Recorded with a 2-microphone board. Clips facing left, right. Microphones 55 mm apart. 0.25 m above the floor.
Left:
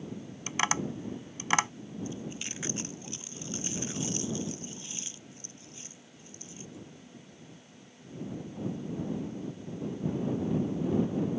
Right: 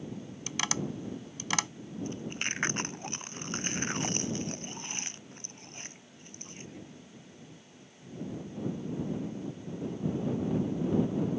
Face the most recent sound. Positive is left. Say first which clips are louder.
# right 4 dB
turn(degrees=-55)  # may be behind; listen again after turning